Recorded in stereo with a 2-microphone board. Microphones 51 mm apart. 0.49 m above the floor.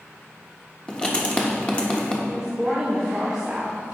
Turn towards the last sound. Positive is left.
turn(degrees=-10)  # may be behind; listen again after turning